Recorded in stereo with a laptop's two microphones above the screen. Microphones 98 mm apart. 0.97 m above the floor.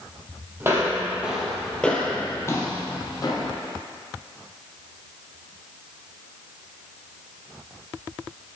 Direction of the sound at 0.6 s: 25° right (ahead or behind).